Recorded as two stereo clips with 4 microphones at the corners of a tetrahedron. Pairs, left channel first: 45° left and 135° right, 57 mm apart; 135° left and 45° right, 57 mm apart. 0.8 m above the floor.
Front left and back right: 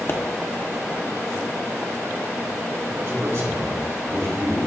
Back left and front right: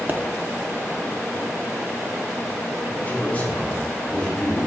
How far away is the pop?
About 1.1 m.